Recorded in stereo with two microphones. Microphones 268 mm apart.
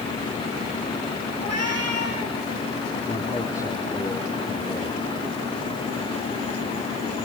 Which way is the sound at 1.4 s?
65° right (ahead or behind).